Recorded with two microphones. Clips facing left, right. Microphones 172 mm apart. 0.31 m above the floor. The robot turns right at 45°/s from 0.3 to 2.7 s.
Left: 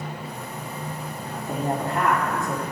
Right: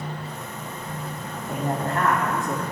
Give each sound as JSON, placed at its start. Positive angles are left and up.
{"t": 1.2, "sound": "a woman speaking", "azimuth_deg": 125, "distance_m": 2.0}